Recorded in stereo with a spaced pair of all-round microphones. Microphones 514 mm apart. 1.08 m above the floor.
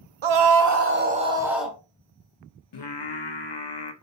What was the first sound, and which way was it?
A scream, 65° right (ahead or behind).